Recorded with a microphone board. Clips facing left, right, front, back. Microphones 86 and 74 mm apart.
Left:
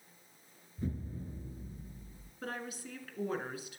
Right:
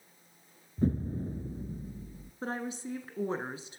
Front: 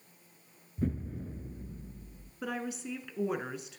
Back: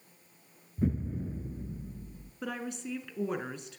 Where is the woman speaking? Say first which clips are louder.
Right 6 dB, front 1 dB; 85° right, 1.2 m.